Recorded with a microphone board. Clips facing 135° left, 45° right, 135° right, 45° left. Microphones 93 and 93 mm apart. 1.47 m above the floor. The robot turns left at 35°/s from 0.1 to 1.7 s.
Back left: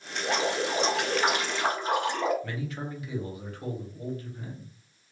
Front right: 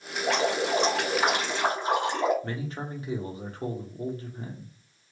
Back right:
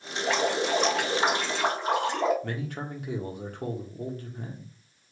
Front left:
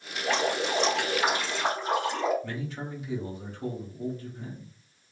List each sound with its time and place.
0.2 s dripping: 60° right, 1.8 m; by 2.3 s 110° right, 1.8 m
2.4 s a man speaking: 100° right, 1.2 m